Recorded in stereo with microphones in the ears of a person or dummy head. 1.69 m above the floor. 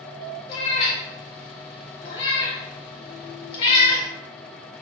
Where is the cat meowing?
30° left (ahead or behind), 1.3 m.